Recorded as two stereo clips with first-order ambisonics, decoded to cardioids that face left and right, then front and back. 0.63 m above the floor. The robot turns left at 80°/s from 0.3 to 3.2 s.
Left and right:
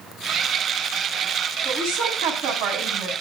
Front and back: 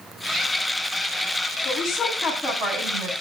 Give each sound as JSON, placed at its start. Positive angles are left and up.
{"t": 1.6, "sound": "a woman speaking", "azimuth_deg": -35, "distance_m": 5.5}